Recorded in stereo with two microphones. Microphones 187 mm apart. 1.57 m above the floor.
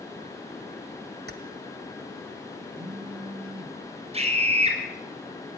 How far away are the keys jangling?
About 1.6 m.